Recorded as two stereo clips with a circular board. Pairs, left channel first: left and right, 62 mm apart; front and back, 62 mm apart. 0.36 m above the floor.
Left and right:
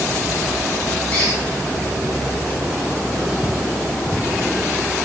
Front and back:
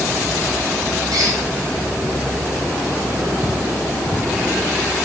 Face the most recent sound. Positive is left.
turn(degrees=160)